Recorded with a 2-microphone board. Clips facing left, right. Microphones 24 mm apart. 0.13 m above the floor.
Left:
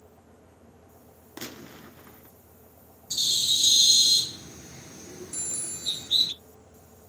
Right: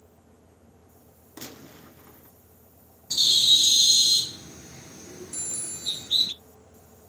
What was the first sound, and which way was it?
A gunshot, 25° left (ahead or behind).